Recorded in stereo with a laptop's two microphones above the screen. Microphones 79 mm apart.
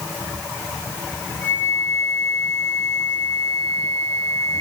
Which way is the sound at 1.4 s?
30° left (ahead or behind).